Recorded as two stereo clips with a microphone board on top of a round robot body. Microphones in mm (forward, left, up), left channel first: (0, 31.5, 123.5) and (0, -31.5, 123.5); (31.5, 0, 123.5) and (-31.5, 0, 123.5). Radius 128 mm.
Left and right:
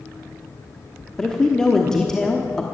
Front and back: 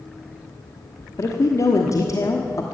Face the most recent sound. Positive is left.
turn(degrees=10)